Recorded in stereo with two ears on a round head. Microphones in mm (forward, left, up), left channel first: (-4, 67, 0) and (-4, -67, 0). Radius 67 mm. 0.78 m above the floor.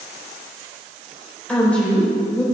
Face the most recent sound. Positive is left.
turn(degrees=10)  # may be behind; listen again after turning